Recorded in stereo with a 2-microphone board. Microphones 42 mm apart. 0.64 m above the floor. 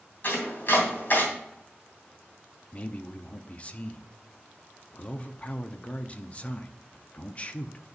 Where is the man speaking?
30° left (ahead or behind), 0.6 m.